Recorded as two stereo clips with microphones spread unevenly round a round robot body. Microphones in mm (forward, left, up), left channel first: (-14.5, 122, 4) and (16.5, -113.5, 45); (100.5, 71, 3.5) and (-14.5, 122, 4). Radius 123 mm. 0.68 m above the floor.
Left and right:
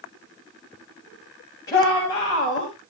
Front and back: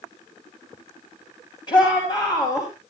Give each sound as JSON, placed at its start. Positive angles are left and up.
{"t": 1.7, "sound": "a shout", "azimuth_deg": 25, "distance_m": 6.0}